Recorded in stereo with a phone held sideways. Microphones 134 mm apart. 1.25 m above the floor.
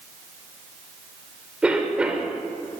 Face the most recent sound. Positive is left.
turn(degrees=-10)  # may be behind; listen again after turning